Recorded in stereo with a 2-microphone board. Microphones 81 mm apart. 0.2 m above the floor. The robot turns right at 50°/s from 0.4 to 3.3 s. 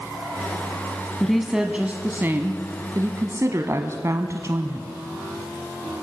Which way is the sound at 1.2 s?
175° left.